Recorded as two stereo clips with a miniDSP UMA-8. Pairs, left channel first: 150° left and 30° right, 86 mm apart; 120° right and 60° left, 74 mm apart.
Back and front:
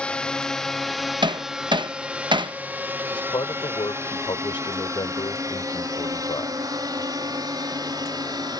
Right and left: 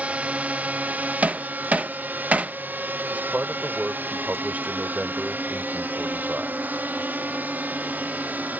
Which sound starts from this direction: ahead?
Hammering, at 1.2 s.